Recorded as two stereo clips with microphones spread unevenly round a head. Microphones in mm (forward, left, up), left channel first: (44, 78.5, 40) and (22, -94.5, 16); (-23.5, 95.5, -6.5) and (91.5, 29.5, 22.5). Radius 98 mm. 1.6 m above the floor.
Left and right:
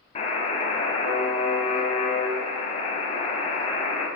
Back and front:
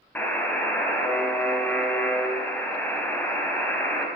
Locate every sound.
0.1 s a buzzer: 65° left, 1.8 m